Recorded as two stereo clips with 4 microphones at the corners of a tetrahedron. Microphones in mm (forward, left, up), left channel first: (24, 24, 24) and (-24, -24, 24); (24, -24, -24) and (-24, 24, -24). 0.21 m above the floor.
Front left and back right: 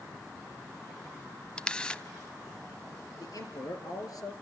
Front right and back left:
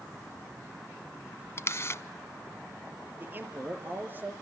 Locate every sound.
1.6 s a camera shutter: 25° right, 0.8 m
3.2 s a man speaking: 75° left, 4 m